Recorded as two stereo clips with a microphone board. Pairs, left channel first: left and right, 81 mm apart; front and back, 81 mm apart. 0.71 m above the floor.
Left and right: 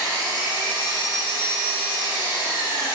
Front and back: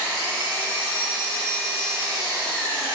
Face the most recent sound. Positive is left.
turn(degrees=105)